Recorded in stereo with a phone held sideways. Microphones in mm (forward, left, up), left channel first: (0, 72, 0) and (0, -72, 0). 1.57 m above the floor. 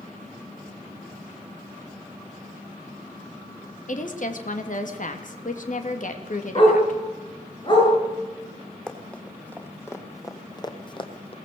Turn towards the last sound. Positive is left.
turn(degrees=40)  # may be behind; listen again after turning